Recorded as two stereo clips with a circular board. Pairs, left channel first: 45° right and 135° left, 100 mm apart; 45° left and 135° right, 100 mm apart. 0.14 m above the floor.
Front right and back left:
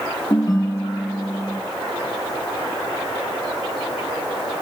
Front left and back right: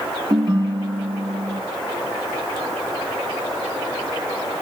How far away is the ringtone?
About 3 m.